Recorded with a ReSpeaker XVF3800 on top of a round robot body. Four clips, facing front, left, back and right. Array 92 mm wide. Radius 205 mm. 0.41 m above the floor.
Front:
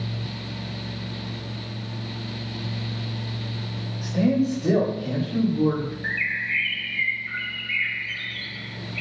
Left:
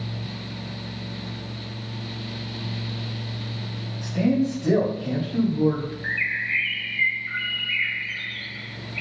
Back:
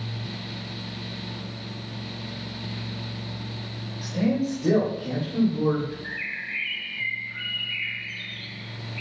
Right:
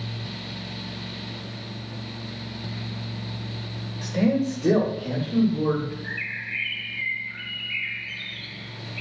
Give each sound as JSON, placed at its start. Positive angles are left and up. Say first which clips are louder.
{"t": 4.0, "sound": "a man speaking", "louder": "left 1 dB, front 3 dB", "azimuth_deg": -90, "distance_m": 3.0}
{"t": 6.0, "sound": "a bird", "louder": "left 6 dB, front 6 dB", "azimuth_deg": 45, "distance_m": 0.9}